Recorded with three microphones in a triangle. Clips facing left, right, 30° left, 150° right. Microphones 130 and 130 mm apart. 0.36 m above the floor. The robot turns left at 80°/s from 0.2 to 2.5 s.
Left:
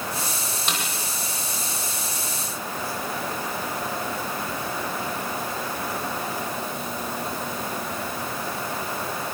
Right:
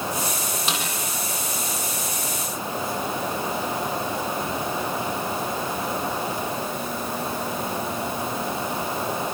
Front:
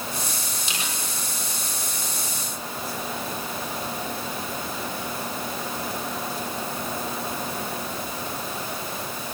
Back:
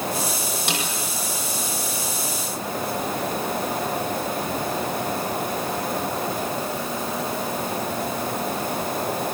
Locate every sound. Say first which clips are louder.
0.7 s a snare drum: right 1 dB, back 7 dB; 175° right, 8.5 m; by 0.8 s 170° left, 8.5 m